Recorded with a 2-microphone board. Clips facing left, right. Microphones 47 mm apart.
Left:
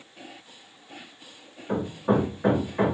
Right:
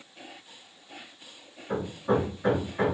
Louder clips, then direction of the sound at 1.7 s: Left 2 dB; 30° left (ahead or behind).